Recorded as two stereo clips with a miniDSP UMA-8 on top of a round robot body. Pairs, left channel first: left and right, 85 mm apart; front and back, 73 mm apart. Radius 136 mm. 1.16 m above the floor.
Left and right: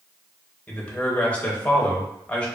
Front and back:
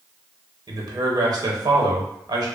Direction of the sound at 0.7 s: 165° left.